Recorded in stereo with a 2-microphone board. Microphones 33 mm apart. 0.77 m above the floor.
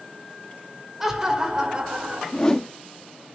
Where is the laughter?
10° right (ahead or behind), 2.5 m; by 2.2 s 35° right (ahead or behind), 3 m.